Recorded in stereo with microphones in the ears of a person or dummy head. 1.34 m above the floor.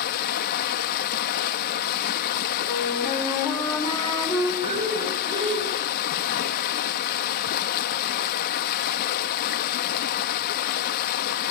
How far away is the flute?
About 4.5 m.